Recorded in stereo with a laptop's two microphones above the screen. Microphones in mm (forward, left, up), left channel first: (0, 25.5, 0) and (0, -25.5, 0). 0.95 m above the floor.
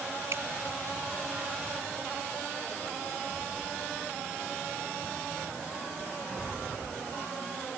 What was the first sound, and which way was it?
Dripping, 55° right (ahead or behind).